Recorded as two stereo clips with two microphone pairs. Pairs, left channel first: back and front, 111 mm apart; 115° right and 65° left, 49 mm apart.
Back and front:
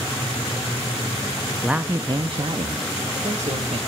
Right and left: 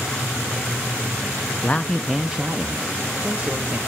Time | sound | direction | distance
1.6 | a man speaking | 85° right | 0.5 m